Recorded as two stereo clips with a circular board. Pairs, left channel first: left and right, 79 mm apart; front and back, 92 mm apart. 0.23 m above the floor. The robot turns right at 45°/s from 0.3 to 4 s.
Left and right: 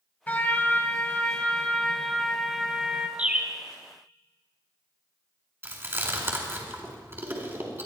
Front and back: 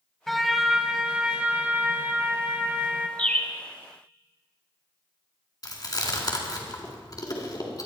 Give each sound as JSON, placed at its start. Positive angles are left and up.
{"t": 0.3, "sound": "a trumpet", "azimuth_deg": 85, "distance_m": 1.2}
{"t": 3.2, "sound": "a bird", "azimuth_deg": -50, "distance_m": 1.4}
{"t": 5.6, "sound": "chewing", "azimuth_deg": -35, "distance_m": 3.0}